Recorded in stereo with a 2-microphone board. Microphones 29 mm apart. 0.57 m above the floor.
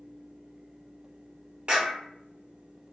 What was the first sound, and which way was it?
A clap, 40° right (ahead or behind).